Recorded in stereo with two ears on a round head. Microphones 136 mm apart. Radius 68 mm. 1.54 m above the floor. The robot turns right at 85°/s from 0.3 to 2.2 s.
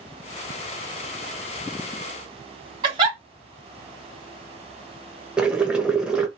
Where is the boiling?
5° right (ahead or behind), 0.9 m.